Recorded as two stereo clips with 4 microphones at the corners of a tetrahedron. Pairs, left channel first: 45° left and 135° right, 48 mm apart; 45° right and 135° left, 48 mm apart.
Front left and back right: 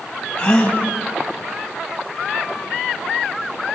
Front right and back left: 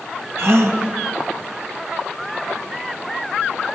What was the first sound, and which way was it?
A gasp, 110° left.